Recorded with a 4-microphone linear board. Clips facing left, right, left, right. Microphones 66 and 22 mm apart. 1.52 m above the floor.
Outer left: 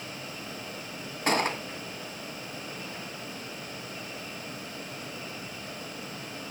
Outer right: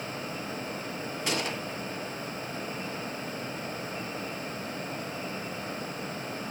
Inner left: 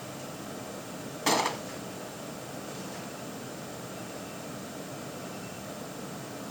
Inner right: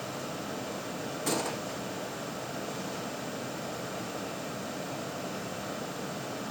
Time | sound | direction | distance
1.3 | a gunshot | 40° left (ahead or behind) | 1.0 m